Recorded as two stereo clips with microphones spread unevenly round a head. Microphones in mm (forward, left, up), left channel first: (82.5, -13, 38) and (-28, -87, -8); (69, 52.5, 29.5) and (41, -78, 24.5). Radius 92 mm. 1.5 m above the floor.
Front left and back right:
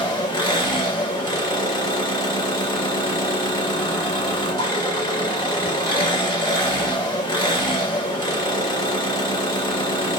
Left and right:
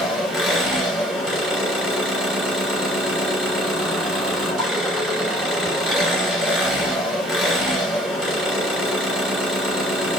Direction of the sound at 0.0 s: 15° right.